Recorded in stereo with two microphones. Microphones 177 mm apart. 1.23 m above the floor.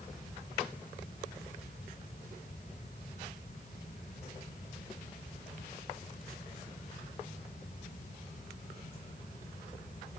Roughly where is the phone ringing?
No phone ringing in this recording.